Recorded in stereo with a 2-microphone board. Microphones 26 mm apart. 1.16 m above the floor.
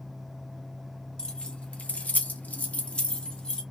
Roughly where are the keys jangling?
Left.